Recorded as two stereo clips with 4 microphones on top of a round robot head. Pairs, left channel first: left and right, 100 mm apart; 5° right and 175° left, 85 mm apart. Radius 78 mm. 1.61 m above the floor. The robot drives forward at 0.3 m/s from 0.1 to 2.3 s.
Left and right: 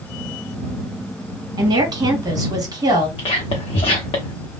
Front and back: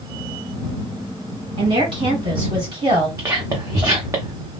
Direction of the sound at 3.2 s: 120° left.